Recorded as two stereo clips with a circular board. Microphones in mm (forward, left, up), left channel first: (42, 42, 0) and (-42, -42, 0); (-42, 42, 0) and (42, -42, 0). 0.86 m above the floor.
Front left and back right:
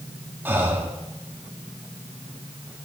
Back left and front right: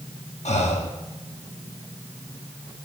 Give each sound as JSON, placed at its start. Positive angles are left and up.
{"t": 0.5, "sound": "breathing", "azimuth_deg": 150, "distance_m": 1.0}